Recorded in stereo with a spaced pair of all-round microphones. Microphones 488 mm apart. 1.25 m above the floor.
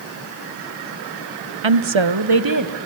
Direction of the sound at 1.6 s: 65° right (ahead or behind).